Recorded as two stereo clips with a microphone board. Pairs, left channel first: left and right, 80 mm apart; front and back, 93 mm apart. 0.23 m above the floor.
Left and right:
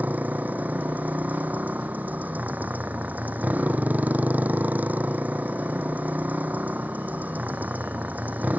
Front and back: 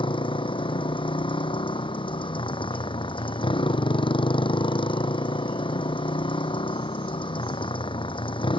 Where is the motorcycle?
20° right.